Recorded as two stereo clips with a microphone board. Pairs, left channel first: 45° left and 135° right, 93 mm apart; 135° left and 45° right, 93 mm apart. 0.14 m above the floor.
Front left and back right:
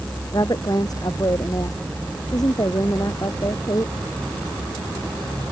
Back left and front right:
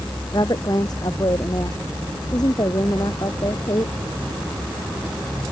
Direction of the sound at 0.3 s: 90° left.